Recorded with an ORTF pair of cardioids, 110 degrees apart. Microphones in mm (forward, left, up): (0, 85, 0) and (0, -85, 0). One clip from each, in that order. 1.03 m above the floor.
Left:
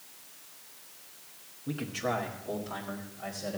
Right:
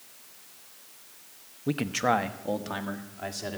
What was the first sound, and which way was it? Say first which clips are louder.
A man speaking: right 7 dB; 45° right.